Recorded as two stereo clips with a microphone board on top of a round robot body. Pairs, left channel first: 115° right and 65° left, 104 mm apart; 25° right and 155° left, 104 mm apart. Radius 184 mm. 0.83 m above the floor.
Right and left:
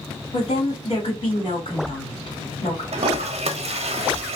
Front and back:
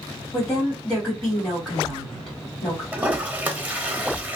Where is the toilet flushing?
85° left, 0.6 m.